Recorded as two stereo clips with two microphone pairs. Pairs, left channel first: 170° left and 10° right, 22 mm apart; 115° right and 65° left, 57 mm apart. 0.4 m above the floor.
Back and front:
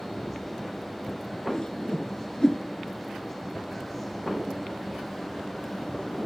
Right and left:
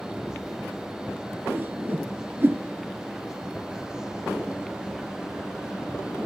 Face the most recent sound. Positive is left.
turn(degrees=115)